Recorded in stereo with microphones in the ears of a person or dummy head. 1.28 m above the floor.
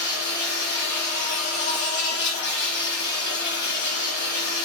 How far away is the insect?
About 2.0 m.